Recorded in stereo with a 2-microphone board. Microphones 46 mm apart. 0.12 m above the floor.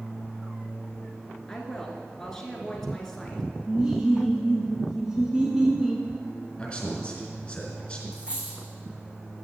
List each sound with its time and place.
1.5 s a woman speaking: 10° left (ahead or behind), 1.5 m
3.7 s laughter: 15° right (ahead or behind), 1.1 m
6.6 s a man speaking: 20° left (ahead or behind), 1.9 m
8.1 s a dropped coin: 25° right (ahead or behind), 3 m